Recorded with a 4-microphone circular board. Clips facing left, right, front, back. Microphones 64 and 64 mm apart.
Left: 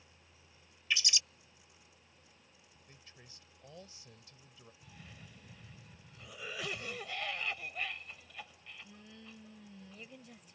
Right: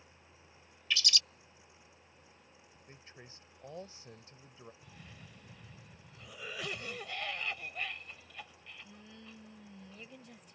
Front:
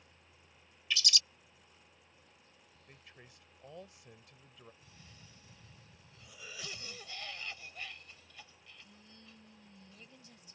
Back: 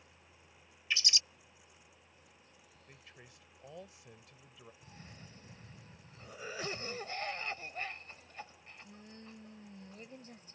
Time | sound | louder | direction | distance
0.9 | a bird | even, even | 145° left | ?
2.9 | a man speaking | right 5 dB, even | 95° right | ?
4.8 | a cough | right 1 dB, back 5 dB | 175° left | ?